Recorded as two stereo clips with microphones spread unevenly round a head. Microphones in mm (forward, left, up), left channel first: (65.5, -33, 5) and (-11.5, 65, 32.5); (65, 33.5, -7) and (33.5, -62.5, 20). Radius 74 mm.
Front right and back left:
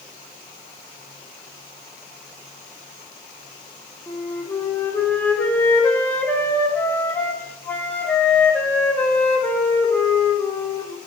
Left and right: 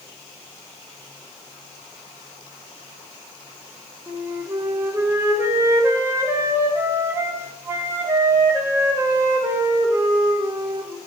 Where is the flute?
35° right, 0.5 m.